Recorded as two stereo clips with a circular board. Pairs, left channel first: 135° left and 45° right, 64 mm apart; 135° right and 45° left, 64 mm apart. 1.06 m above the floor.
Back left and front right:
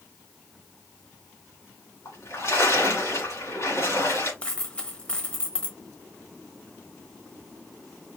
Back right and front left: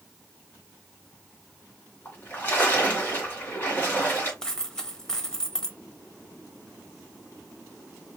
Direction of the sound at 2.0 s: 170° left.